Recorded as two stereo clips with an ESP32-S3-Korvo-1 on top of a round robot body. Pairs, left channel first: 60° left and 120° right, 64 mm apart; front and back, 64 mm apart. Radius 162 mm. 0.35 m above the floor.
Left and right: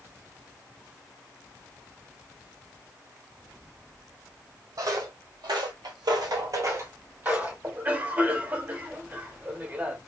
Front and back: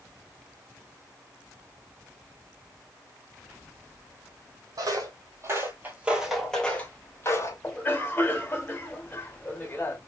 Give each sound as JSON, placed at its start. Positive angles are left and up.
{"t": 4.8, "sound": "footsteps", "azimuth_deg": -150, "distance_m": 1.3}
{"t": 7.6, "sound": "a cough", "azimuth_deg": -65, "distance_m": 1.8}